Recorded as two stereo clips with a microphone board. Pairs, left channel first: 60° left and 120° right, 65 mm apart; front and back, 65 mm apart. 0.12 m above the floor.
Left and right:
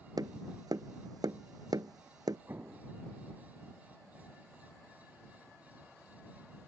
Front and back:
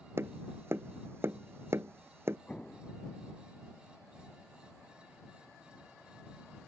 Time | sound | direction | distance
0.2 | tapping | 130° right | ?
2.5 | an explosion | 70° right | ?